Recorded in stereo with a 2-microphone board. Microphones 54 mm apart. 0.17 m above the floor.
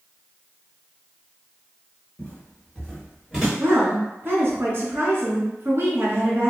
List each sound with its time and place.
2.2 s footsteps: 35° left (ahead or behind), 1.4 m; by 3.5 s 10° right (ahead or behind), 1.6 m
3.6 s a woman speaking: 45° right (ahead or behind), 1.4 m